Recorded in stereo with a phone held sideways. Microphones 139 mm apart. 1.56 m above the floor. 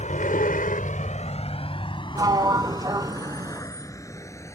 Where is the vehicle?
60° left (ahead or behind); by 4.6 s 20° left (ahead or behind).